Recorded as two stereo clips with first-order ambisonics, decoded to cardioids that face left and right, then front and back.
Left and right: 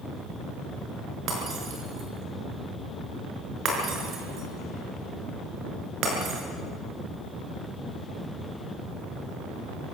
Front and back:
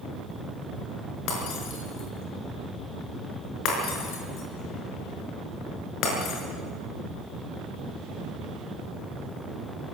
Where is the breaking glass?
40° right, 5.5 m.